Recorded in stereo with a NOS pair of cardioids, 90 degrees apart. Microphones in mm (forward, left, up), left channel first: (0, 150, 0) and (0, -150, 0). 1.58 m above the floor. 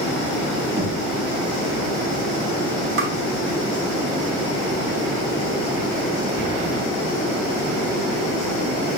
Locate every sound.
0.8 s knocking: 35° right, 3.5 m
3.0 s tapping: 45° right, 2.5 m